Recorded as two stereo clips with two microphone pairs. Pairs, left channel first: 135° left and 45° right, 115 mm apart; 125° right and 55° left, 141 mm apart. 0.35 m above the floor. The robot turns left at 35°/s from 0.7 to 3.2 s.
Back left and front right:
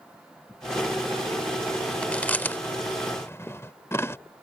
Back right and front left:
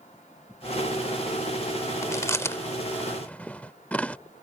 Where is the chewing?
155° right; by 4.2 s 165° left.